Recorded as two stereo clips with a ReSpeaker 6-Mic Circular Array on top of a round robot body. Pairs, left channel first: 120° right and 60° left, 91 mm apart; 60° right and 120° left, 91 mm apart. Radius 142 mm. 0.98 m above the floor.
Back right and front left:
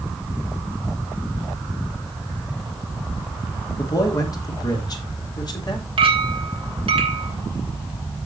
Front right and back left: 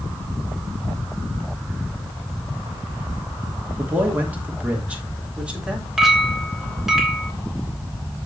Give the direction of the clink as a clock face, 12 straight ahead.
11 o'clock.